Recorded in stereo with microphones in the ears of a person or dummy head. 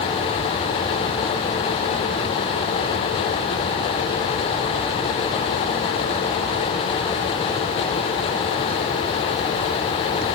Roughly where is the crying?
I don't hear crying.